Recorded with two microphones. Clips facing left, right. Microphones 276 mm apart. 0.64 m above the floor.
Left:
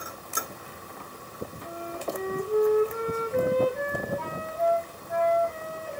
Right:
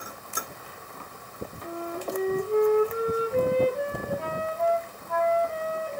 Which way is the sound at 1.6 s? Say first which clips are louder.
Right 3 dB; 25° right (ahead or behind).